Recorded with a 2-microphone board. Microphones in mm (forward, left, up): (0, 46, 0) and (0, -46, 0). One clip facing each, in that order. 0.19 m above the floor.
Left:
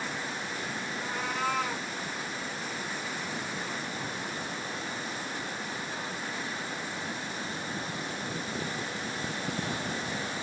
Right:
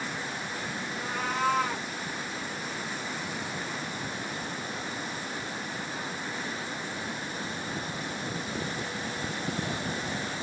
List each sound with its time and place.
0.9 s a cat meowing: 30° right (ahead or behind), 7 m